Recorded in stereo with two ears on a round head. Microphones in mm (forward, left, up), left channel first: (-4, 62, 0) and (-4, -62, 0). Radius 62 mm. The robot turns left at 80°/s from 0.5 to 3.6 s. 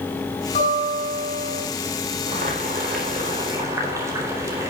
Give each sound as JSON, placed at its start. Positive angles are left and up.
{"t": 0.6, "sound": "a guitar", "azimuth_deg": 125, "distance_m": 8.0}
{"t": 2.3, "sound": "boiling", "azimuth_deg": -45, "distance_m": 4.0}